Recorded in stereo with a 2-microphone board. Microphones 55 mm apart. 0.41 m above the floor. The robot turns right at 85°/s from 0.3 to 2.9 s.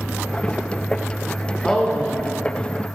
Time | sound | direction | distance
1.6 | a woman speaking | 5° left (ahead or behind) | 0.8 m